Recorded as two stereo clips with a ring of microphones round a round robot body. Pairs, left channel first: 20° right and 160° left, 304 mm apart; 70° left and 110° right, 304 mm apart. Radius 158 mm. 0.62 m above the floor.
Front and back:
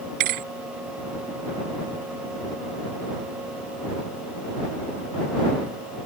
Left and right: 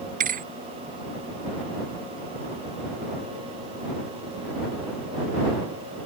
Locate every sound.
0.2 s a thud: 175° right